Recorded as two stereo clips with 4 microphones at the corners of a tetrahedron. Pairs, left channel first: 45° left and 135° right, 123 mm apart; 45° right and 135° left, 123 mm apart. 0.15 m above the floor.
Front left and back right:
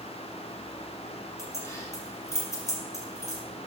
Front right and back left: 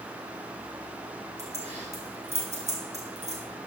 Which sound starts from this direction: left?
Keys jangling, at 1.4 s.